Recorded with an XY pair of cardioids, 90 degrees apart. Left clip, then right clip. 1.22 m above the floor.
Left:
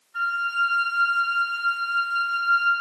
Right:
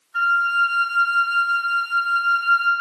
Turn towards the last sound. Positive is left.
turn(degrees=-60)